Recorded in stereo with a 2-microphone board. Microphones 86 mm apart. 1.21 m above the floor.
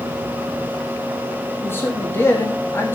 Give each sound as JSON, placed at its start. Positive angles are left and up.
{"t": 1.6, "sound": "a man speaking", "side_deg": 25, "distance_m": 2.5}